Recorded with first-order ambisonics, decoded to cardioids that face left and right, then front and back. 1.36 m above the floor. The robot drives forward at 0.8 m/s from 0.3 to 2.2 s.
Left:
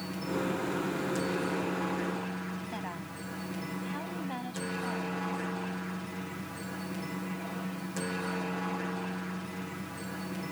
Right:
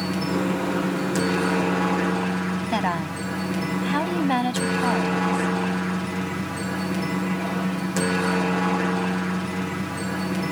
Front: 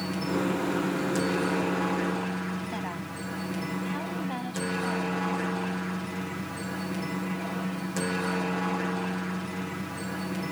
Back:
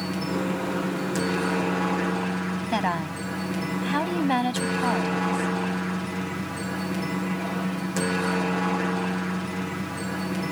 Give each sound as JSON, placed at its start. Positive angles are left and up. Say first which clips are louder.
{"t": 0.0, "sound": "a helicopter", "louder": "right 9 dB, back 1 dB", "azimuth_deg": -105}
{"t": 2.7, "sound": "a woman speaking", "louder": "right 15 dB, back 9 dB", "azimuth_deg": -130}